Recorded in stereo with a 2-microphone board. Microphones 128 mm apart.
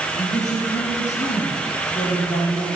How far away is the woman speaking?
About 7 m.